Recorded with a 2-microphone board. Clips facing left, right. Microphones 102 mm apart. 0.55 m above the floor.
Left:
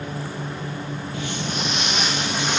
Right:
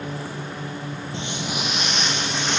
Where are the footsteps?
30° right (ahead or behind), 0.9 m; by 2.6 s 10° left (ahead or behind), 2.5 m.